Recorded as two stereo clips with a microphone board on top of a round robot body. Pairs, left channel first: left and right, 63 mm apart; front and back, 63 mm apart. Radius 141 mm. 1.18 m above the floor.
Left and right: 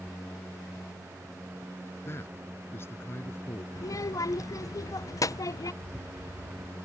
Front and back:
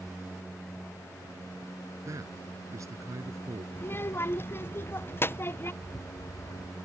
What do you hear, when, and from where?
2.0 s a man speaking: 140° left
3.8 s a child speaking: 55° left
5.8 s a rattle: 20° right